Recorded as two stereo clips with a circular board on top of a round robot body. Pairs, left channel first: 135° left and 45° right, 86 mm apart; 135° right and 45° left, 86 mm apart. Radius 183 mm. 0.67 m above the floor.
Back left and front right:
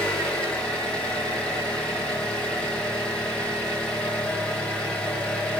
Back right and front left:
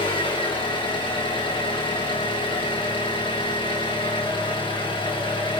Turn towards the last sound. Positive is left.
turn(degrees=-150)